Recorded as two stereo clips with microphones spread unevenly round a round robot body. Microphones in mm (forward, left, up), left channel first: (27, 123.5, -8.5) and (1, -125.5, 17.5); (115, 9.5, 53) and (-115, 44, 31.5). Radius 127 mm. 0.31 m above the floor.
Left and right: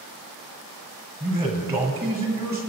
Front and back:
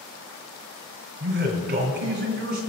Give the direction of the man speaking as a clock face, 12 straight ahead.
6 o'clock.